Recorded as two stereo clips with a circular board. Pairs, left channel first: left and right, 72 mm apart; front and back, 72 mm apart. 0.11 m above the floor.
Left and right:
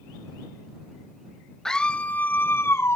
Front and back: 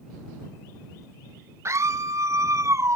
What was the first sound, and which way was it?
A scream, 170° left.